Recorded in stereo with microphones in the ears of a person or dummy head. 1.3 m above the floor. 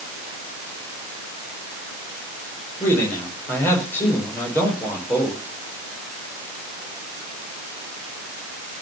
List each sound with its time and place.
2.8 s a man speaking: 10° left (ahead or behind), 5 m